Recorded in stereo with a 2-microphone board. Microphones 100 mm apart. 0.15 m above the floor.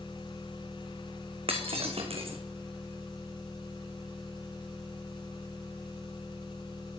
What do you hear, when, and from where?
0.0 s an engine running: 50° left (ahead or behind), 6.5 m
1.5 s breaking glass: 70° right (ahead or behind), 1.7 m